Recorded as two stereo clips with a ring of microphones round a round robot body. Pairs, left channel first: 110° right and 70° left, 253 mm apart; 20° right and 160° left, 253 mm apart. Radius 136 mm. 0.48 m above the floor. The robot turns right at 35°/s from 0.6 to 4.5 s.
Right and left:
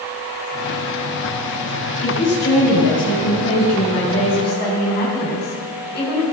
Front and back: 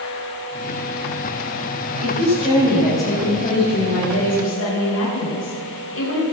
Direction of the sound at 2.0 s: 145° right.